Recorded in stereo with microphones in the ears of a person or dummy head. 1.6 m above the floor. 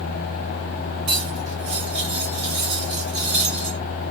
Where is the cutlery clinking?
30° right (ahead or behind), 2.5 m.